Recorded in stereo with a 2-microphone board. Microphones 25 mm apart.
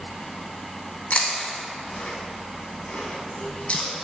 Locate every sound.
1.1 s chewing: 55° left (ahead or behind), 1.4 m